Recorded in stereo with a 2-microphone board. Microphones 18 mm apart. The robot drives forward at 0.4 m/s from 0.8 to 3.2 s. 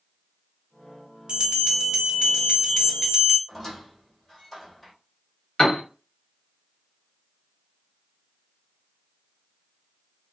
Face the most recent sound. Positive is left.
turn(degrees=60)  # may be behind; listen again after turning